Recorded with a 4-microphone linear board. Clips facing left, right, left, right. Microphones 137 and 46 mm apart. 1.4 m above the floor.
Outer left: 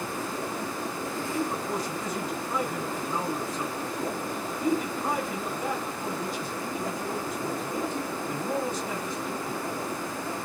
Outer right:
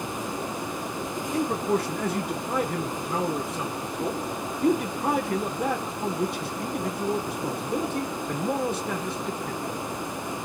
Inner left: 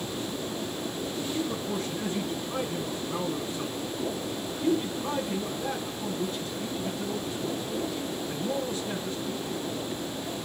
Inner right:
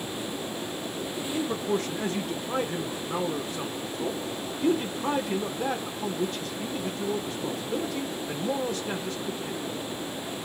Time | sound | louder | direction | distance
1.3 | a man speaking | outer right 7 dB, inner right 6 dB | 65° right (ahead or behind) | 0.7 m